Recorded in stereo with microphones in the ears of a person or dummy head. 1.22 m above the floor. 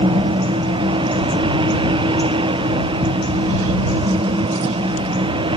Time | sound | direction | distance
0.0 | a fan | 25° right (ahead or behind) | ?